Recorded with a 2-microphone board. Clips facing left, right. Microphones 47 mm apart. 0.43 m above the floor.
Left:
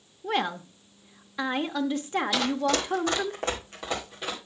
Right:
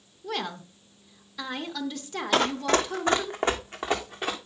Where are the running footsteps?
45° right (ahead or behind), 1.0 m; by 4.3 s 25° right (ahead or behind), 2.5 m.